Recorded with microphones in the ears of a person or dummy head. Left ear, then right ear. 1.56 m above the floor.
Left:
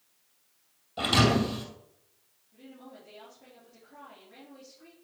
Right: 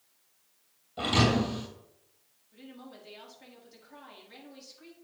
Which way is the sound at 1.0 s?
25° left (ahead or behind).